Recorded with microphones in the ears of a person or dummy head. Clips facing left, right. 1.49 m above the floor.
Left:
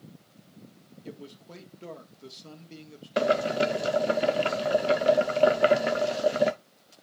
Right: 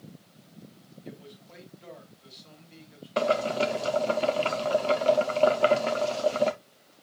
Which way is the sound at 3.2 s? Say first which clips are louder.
Left 1 dB; 15° left (ahead or behind).